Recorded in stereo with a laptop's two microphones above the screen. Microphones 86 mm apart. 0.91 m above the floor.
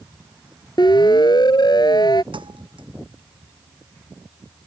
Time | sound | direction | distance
0.8 | a siren | 60° left (ahead or behind) | ?
2.3 | a thud | 75° right (ahead or behind) | ?